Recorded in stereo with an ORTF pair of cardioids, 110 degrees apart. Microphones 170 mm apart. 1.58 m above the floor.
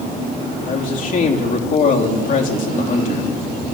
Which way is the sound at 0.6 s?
50° left.